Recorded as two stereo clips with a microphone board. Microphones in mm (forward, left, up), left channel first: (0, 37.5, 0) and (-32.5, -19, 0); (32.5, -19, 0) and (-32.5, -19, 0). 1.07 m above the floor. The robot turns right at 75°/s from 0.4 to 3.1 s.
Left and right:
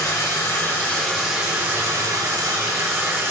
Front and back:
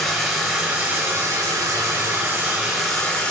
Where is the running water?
90° left, 1.0 m; by 3.3 s 70° right, 1.0 m.